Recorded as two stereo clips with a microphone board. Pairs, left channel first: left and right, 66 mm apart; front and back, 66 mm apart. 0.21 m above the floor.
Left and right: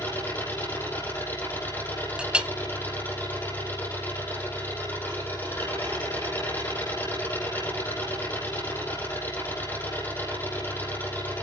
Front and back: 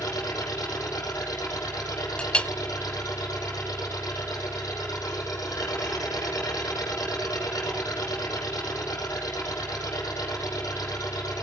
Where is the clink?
40° right, 0.7 m.